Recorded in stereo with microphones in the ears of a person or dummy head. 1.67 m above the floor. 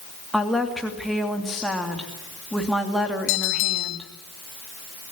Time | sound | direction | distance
0.3 | a woman speaking | centre (ahead or behind) | 3 m
3.3 | a bell | 70° left (ahead or behind) | 2.5 m